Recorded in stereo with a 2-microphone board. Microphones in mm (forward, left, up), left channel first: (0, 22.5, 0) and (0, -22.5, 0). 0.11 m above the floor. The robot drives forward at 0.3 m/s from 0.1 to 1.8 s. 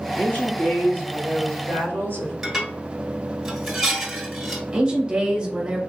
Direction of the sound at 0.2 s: 50° left (ahead or behind).